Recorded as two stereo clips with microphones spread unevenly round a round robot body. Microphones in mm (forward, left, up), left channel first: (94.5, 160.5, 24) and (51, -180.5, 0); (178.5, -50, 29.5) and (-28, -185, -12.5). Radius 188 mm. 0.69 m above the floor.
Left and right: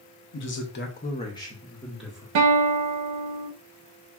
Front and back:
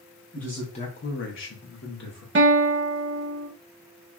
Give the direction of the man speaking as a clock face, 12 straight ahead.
8 o'clock.